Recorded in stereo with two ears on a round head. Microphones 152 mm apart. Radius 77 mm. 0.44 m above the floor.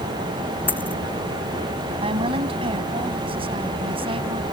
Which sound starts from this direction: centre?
A dropped coin, at 0.7 s.